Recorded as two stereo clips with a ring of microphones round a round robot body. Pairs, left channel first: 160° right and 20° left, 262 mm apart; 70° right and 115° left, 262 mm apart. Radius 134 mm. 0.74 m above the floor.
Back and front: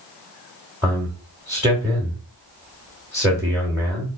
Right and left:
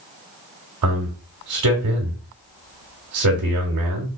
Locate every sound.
0.8 s a man speaking: 105° left, 1.3 m